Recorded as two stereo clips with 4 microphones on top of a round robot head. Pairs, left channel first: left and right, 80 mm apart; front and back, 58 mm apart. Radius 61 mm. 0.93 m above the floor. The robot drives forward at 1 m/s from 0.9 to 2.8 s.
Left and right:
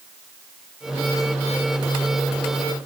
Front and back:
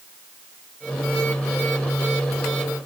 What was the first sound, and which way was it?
Only background noise.